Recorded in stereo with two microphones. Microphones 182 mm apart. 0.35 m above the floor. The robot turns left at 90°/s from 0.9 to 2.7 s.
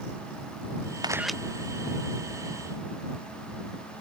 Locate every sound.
1.0 s a camera shutter: 25° right (ahead or behind); by 1.4 s 5° left (ahead or behind)